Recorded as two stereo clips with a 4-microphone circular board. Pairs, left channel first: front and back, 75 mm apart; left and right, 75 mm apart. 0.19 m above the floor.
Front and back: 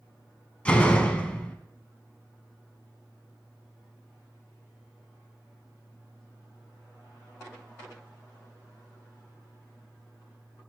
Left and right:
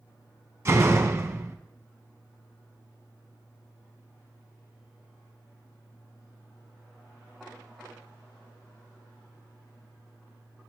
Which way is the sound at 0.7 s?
65° right.